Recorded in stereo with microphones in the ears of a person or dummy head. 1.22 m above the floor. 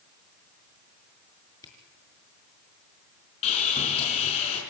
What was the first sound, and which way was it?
A camera shutter, 25° left (ahead or behind).